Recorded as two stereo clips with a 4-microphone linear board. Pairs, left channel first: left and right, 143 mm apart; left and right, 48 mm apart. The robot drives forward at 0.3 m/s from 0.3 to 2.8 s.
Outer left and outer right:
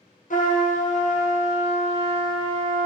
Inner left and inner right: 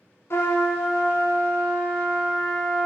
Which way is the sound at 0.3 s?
65° left (ahead or behind).